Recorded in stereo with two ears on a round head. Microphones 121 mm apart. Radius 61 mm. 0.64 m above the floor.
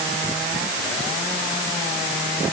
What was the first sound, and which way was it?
Only background noise.